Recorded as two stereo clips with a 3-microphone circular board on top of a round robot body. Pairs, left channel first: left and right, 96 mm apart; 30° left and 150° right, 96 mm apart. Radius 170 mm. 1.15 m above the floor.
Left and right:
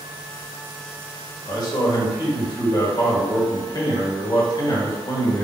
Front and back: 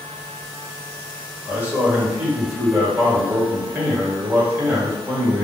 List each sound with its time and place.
1.4 s a man speaking: 135° left, 1.7 m